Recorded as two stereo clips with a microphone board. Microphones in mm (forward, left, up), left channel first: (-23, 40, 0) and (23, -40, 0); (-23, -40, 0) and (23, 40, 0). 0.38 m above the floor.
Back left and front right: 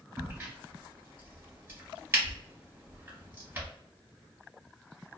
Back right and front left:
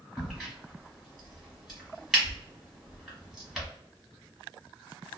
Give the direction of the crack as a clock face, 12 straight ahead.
1 o'clock.